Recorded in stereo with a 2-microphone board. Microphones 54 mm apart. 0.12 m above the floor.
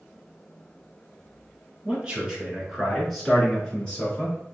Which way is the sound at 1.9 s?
25° right (ahead or behind).